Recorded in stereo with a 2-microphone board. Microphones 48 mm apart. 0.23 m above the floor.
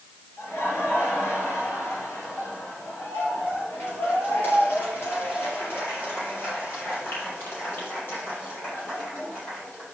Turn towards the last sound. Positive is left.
turn(degrees=45)  # may be behind; listen again after turning